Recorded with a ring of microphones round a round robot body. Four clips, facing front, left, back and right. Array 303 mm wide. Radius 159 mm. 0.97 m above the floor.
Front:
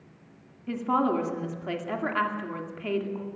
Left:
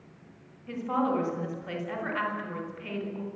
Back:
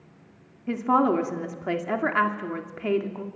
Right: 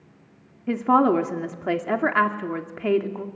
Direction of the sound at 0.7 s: 110° right.